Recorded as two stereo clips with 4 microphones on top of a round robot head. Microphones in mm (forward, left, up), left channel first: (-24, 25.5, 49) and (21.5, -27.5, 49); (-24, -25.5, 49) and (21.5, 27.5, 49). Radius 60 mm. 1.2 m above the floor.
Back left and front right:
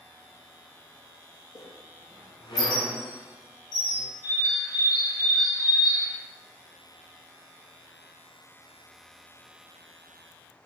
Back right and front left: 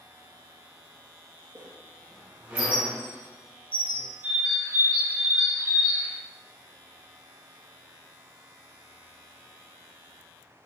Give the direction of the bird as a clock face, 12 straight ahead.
9 o'clock.